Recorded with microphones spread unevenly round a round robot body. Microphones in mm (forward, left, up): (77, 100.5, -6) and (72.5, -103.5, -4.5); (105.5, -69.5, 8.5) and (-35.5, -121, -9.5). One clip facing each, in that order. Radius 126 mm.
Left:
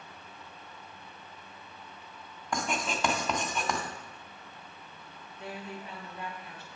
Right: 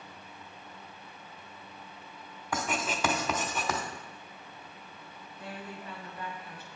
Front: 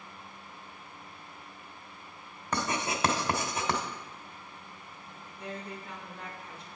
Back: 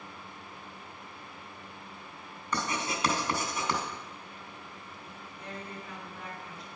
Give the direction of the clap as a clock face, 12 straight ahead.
I don't hear a clap.